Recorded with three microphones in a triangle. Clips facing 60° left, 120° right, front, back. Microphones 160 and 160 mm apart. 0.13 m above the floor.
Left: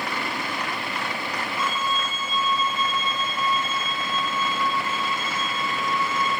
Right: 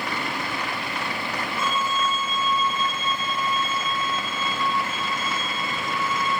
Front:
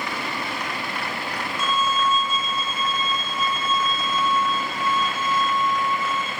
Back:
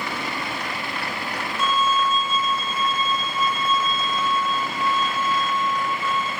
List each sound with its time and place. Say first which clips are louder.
1.6 s a violin: right 3 dB, back 2 dB; 160° right, 2 m